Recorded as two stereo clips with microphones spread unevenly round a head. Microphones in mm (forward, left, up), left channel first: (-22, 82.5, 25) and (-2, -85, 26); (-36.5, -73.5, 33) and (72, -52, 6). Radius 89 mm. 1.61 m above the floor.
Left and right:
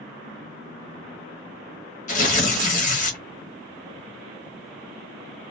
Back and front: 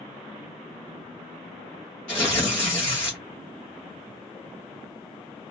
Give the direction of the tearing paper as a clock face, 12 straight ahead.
8 o'clock.